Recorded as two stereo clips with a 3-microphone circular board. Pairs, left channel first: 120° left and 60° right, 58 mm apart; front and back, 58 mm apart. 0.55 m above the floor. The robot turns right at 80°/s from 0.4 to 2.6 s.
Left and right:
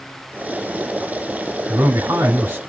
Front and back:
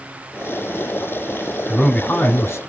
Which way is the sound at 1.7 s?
80° right.